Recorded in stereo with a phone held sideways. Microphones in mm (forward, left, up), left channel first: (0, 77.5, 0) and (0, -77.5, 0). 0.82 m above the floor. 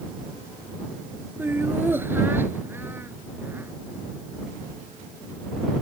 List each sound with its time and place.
1.4 s laughter: 15° right (ahead or behind)